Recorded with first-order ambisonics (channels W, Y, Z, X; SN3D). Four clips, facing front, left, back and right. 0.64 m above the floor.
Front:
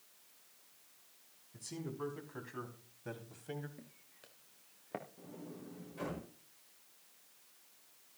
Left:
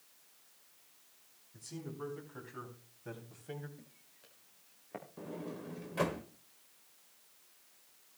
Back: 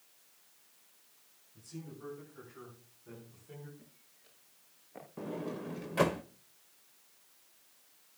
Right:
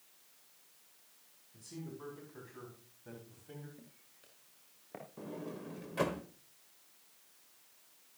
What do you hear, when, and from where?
1.5 s a man speaking: 10° left, 5.5 m; by 3.7 s 30° left, 4 m
3.8 s footsteps: 10° right, 4 m; by 5.0 s 5° left, 4 m
5.2 s a sliding door: straight behind, 1.1 m